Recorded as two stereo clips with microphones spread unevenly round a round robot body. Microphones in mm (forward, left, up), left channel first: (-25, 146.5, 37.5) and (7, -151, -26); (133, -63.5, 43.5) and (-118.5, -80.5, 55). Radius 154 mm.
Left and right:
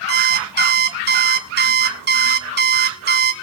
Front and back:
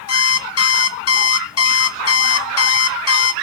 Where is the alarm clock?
25° right, 1.3 m.